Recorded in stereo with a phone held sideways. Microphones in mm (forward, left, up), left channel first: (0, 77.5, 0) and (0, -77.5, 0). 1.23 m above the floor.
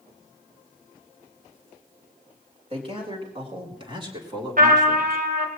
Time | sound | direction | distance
2.7 | a man speaking | 40° right (ahead or behind) | 4.5 m
4.6 | a trumpet | 65° right (ahead or behind) | 2.5 m